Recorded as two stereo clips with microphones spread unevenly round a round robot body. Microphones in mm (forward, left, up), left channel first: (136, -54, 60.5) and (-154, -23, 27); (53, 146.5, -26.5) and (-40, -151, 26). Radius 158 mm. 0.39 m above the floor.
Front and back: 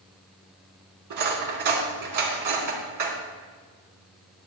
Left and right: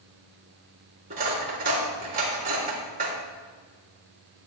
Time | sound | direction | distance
1.1 | cutlery clinking | 175° right | 3 m